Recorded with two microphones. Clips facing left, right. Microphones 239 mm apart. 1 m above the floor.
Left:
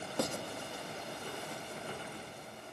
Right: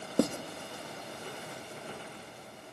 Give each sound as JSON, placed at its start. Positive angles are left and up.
{"t": 0.2, "sound": "writing", "side_deg": -60, "distance_m": 1.5}